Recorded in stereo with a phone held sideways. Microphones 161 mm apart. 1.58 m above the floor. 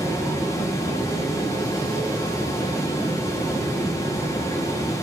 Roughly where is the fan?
Left.